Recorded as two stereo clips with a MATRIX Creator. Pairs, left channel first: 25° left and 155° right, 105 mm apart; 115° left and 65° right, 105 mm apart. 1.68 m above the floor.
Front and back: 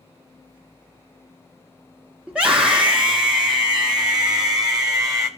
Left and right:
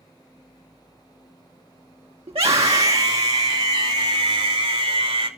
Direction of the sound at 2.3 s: 80° right.